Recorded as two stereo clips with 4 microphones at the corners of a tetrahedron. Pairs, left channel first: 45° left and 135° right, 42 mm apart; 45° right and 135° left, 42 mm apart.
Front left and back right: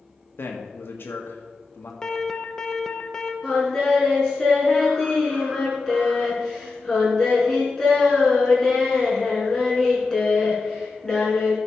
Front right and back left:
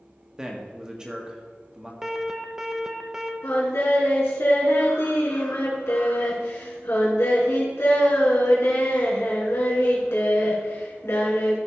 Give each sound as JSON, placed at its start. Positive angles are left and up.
{"t": 0.4, "sound": "a man speaking", "azimuth_deg": 65, "distance_m": 1.6}
{"t": 2.0, "sound": "an alarm", "azimuth_deg": 80, "distance_m": 0.9}
{"t": 3.4, "sound": "singing", "azimuth_deg": -30, "distance_m": 3.5}